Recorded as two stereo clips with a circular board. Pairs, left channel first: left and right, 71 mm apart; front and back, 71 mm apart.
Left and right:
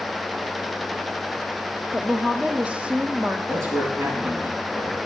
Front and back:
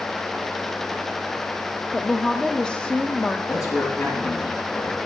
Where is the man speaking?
45° right, 5.5 m.